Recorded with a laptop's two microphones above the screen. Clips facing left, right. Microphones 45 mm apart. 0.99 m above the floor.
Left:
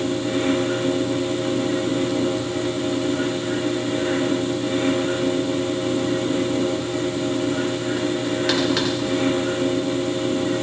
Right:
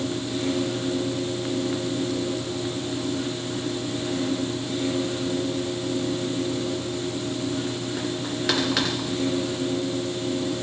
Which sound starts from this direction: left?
A fan, at 0.0 s.